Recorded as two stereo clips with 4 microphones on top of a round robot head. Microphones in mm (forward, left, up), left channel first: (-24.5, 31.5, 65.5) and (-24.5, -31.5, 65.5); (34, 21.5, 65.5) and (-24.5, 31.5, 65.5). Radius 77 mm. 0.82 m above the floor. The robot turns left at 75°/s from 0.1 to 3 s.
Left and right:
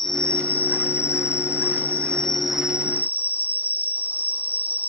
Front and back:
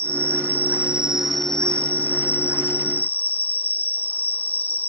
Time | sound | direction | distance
0.0 | an insect | 175° left | 1.0 m